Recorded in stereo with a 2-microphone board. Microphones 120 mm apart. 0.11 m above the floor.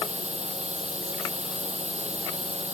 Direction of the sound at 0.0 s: 70° right (ahead or behind).